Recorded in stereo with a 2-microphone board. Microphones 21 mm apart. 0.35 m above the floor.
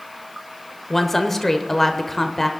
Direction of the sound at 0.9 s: 10° left (ahead or behind).